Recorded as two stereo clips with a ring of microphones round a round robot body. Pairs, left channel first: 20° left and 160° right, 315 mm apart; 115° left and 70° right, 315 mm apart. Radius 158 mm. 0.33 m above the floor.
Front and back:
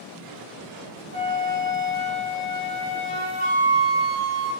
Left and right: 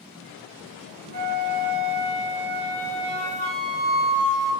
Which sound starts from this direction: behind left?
A flute, at 1.1 s.